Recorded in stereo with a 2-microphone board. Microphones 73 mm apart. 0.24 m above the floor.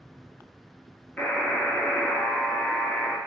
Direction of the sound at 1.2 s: 30° left (ahead or behind).